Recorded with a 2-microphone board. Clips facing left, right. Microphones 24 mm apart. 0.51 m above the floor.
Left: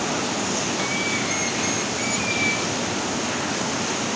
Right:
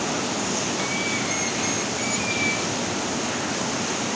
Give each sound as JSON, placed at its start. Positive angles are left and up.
{"t": 0.0, "sound": "running water", "side_deg": 5}